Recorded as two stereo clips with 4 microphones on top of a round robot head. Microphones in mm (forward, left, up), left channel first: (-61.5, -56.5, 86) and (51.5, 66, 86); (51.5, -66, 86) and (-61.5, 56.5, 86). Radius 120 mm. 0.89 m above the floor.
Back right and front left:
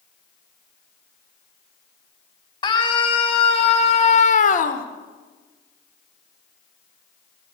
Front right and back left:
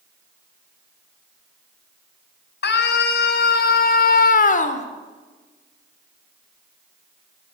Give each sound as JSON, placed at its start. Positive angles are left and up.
{"t": 2.6, "sound": "a scream", "azimuth_deg": -70, "distance_m": 4.5}